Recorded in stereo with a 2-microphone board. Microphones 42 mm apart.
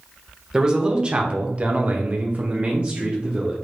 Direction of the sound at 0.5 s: 20° right (ahead or behind).